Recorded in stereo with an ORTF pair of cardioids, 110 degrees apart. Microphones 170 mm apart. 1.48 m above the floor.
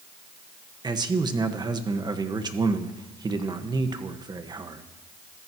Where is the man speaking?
25° right, 1.6 m.